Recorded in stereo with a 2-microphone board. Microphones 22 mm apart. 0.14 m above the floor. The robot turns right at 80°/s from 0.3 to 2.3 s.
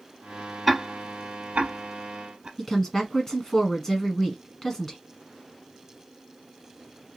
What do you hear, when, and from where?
0.7 s ticking: 5° left (ahead or behind), 1.1 m; by 2.5 s 50° right (ahead or behind), 1.1 m
2.6 s a woman speaking: 15° left (ahead or behind), 1.4 m